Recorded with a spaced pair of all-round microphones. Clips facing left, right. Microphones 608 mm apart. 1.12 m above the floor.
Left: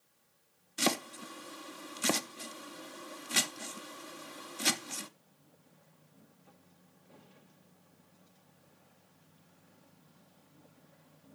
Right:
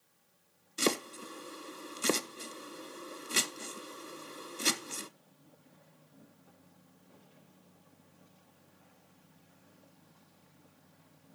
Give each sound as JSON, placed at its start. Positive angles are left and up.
{"t": 0.8, "sound": "chopping", "side_deg": 20, "distance_m": 0.5}